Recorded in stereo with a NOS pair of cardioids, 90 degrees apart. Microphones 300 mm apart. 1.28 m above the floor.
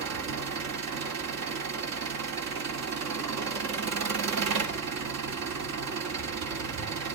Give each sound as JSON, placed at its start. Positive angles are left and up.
{"t": 0.0, "sound": "an engine running", "azimuth_deg": -60, "distance_m": 3.0}